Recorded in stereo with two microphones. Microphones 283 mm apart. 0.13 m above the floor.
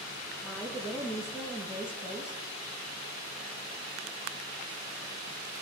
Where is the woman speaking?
10° left (ahead or behind), 2.5 m.